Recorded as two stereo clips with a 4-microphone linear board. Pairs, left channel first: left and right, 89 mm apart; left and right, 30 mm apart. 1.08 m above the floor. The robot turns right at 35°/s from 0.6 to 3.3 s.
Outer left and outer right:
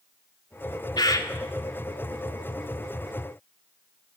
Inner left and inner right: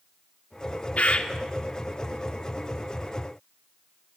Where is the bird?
50° left (ahead or behind), 2.5 m; by 1.3 s 40° left (ahead or behind), 2.5 m.